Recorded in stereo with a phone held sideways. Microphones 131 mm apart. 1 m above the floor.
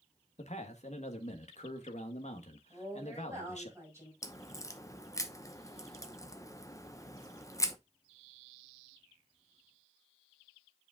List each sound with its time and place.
0.4 s a man speaking: 70° left (ahead or behind), 1.3 m
2.7 s a woman speaking: 20° right (ahead or behind), 5.5 m
4.2 s a crack: 25° left (ahead or behind), 0.8 m